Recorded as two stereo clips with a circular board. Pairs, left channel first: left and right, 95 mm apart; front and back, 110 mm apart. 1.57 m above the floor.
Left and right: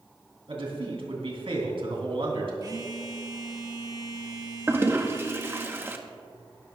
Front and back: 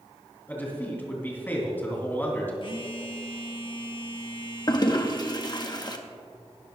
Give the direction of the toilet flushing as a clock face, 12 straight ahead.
1 o'clock.